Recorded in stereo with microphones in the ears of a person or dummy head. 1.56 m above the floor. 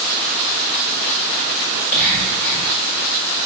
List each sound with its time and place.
1.7 s whispering: 70° left (ahead or behind), 1.9 m